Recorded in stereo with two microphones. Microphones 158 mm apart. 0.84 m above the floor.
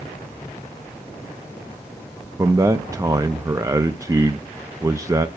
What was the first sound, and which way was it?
A man speaking, 20° right (ahead or behind).